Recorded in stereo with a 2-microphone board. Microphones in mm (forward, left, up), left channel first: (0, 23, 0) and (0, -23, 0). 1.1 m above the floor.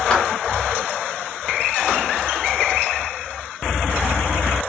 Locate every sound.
0.1 s a clap: 15° left (ahead or behind), 2.5 m